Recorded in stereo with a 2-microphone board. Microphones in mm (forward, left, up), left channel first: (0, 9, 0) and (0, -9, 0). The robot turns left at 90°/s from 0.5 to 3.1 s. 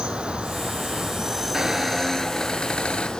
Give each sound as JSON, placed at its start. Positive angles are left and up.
{"t": 0.0, "sound": "an insect", "azimuth_deg": -75, "distance_m": 1.2}
{"t": 1.5, "sound": "a squeak", "azimuth_deg": -140, "distance_m": 0.7}